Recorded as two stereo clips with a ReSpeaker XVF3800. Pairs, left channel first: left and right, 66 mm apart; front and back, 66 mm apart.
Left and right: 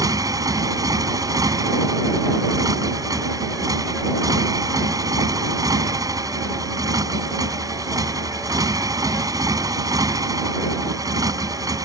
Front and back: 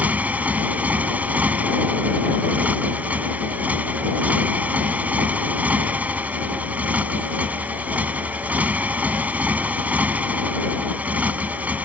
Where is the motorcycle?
115° right.